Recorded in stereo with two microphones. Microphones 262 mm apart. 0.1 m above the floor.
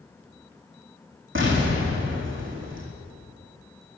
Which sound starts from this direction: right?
An explosion, at 1.4 s.